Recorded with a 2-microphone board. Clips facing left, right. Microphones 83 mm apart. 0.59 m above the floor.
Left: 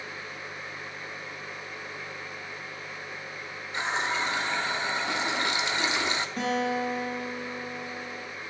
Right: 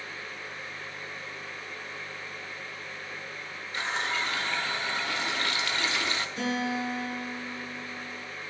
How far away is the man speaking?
I don't hear a man speaking.